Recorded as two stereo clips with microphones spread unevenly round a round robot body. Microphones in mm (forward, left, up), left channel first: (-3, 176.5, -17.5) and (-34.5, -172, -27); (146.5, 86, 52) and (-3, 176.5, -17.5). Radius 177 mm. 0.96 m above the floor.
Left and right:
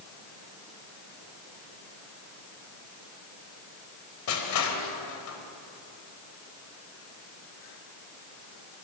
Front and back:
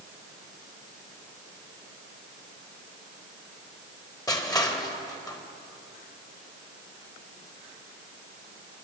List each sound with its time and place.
4.3 s crushing: 40° left, 3.5 m